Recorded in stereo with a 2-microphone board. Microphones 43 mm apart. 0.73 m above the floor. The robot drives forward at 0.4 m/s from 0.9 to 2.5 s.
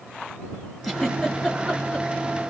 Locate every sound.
0.8 s a giggle: 5° left (ahead or behind), 2.5 m